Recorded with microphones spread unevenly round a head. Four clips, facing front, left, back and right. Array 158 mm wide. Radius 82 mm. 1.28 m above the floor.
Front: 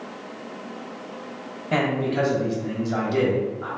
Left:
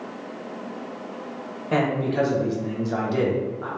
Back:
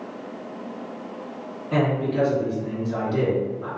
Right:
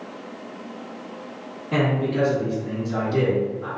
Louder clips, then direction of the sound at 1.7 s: Even, even; 45° left.